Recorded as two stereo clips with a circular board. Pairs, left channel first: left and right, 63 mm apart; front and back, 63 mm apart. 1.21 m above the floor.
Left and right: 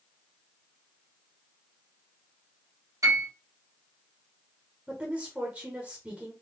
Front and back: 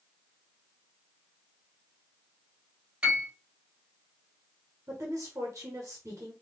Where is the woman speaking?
155° right, 1.2 m.